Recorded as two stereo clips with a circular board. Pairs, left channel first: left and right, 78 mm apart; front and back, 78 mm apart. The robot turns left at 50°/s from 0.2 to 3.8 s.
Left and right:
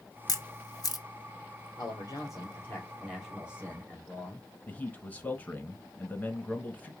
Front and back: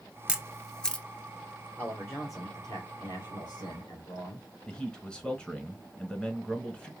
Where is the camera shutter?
105° left, 0.5 m; by 1.1 s 70° left, 0.5 m.